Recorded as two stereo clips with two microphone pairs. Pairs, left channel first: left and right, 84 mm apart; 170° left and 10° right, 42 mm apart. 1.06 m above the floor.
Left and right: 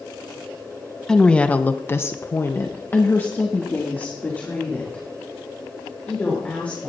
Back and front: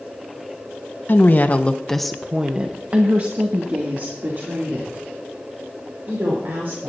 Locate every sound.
1.1 s a woman speaking: 165° left, 1.0 m; by 6.9 s 15° left, 4.5 m